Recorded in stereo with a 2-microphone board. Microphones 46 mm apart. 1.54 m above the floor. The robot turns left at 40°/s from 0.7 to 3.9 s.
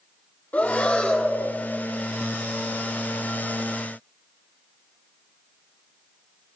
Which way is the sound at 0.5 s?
65° left.